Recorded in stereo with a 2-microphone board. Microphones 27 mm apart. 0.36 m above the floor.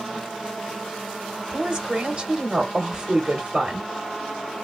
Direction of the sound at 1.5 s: 25° right (ahead or behind).